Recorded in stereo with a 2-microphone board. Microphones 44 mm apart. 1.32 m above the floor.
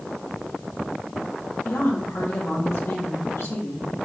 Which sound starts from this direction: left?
A woman speaking, at 1.6 s.